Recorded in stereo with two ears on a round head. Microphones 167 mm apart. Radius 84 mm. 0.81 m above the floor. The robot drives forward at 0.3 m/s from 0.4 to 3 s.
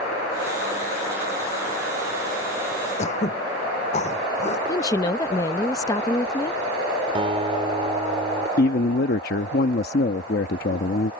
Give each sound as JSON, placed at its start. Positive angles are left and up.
{"t": 3.0, "sound": "throat clearing", "side_deg": 40}
{"t": 4.7, "sound": "a woman speaking", "side_deg": 20}
{"t": 7.2, "sound": "a guitar", "side_deg": -30}
{"t": 8.6, "sound": "a man speaking", "side_deg": 55}